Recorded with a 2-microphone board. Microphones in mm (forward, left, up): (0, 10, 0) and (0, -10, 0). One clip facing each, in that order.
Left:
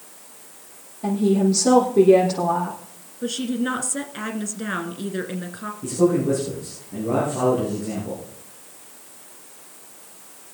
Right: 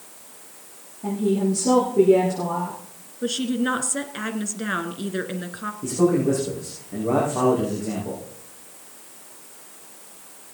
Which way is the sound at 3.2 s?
10° right (ahead or behind).